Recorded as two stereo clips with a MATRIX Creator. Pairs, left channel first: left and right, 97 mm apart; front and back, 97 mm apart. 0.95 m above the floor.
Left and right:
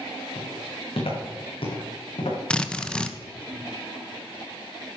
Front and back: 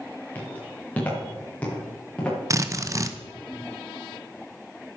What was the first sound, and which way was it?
Footsteps, 75° left.